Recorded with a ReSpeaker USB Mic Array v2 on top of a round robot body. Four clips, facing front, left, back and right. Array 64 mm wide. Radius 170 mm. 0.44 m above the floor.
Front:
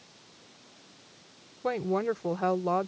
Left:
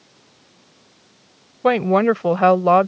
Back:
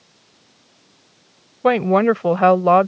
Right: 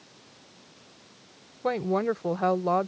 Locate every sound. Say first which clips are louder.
1.6 s a woman speaking: left 10 dB, back 13 dB; 150° left